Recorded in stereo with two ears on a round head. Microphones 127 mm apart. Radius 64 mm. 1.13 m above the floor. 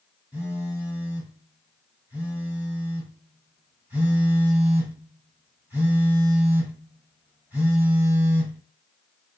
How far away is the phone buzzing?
About 1.4 m.